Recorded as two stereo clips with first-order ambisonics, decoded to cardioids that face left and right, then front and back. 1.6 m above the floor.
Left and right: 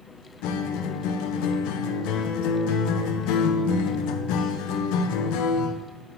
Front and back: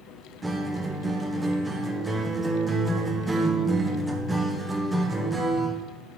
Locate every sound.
0.4 s a guitar: 100° left, 0.6 m